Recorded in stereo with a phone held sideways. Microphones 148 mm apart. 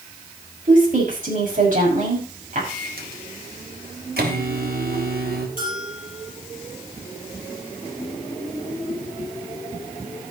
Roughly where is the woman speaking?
Right.